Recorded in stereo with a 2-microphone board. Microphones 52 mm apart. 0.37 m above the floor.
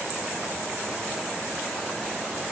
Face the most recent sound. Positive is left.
No sound to turn to.